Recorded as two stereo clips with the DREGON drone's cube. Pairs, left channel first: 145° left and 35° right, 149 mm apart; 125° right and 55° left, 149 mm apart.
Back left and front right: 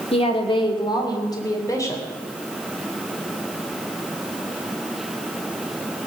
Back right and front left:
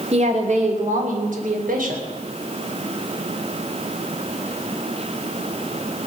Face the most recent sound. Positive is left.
turn(degrees=75)